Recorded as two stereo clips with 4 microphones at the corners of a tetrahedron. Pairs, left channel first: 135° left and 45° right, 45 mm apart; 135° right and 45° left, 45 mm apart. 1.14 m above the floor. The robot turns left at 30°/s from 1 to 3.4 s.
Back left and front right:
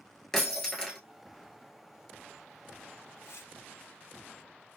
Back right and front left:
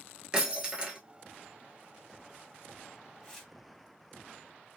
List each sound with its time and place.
0.3 s breaking glass: 65° left, 1.1 m
3.2 s tearing paper: 145° left, 1.3 m; by 3.5 s 140° left, 1.3 m